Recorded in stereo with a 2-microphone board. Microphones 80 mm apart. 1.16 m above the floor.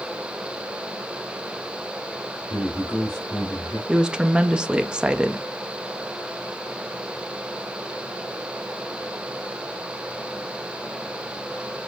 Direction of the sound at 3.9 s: 10° right (ahead or behind).